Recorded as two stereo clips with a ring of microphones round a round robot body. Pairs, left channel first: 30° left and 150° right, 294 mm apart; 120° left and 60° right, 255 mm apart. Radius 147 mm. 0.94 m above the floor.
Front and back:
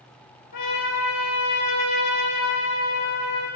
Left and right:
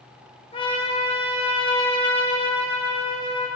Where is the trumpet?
50° left, 4.5 m.